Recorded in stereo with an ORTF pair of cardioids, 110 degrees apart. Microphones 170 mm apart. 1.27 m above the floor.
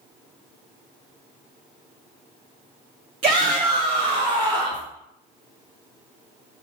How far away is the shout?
About 0.9 m.